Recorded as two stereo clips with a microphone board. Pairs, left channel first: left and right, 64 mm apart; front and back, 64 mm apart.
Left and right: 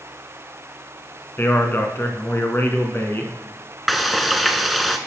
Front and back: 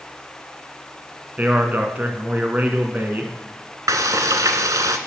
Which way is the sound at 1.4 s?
130° left.